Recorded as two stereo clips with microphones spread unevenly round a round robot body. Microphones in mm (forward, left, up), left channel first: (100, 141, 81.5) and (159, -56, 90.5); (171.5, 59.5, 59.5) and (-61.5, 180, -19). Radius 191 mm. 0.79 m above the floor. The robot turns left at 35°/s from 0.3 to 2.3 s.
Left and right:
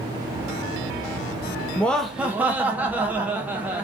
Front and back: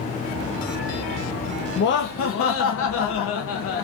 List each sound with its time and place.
1.8 s laughter: 30° left, 0.5 m; by 3.8 s 10° left, 0.5 m